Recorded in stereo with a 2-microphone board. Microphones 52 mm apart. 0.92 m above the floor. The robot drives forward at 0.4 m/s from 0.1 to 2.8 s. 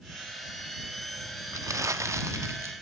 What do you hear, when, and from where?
1.5 s crumpling: 85° right, 0.8 m; by 2.7 s 60° right (ahead or behind), 0.9 m